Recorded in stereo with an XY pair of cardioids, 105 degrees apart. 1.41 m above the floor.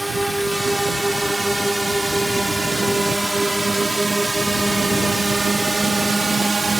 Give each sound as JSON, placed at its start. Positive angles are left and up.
{"t": 0.0, "sound": "a drone", "azimuth_deg": -5}